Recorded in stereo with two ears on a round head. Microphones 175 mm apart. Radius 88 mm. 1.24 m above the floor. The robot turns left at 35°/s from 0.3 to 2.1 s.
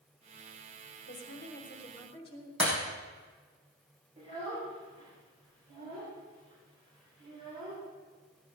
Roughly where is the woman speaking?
Ahead left.